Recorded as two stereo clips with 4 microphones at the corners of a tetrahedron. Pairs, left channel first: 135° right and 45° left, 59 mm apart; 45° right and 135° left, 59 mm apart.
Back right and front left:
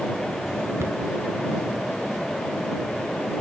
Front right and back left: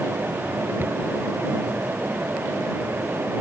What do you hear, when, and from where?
0.8 s a cupboard door: 85° left